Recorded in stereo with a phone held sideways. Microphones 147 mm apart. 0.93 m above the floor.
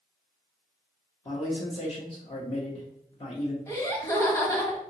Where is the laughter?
20° left (ahead or behind), 1.2 m.